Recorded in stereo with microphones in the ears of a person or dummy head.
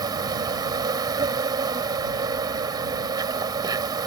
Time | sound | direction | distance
0.0 | an insect | 20° right (ahead or behind) | ?